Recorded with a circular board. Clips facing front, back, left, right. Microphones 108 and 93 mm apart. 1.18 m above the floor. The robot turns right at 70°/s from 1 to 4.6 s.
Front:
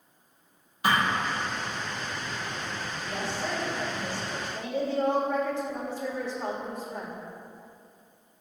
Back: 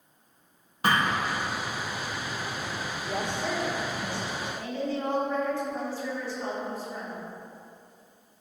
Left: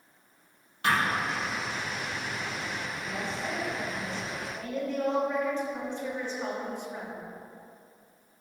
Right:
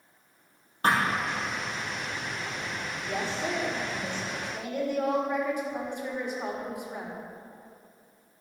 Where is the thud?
140° right, 3 m; by 1.1 s 135° right, 3 m.